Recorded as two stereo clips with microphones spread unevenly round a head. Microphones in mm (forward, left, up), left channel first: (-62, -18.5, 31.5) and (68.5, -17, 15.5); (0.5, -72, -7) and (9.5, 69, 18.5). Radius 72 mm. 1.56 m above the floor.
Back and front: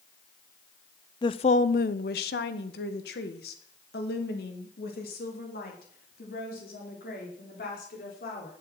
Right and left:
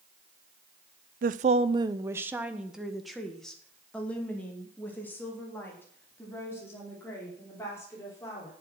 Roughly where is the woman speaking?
Behind left.